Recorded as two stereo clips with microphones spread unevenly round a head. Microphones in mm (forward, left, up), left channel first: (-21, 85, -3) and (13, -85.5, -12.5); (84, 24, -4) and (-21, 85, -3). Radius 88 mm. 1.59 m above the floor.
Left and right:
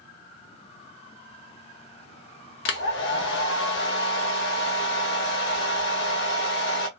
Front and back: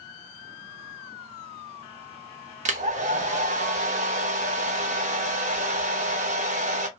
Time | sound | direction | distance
2.6 | a hair dryer | 125° left | 0.6 m